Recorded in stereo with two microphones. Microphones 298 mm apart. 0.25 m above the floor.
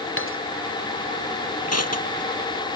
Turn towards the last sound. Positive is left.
turn(degrees=55)  # may be behind; listen again after turning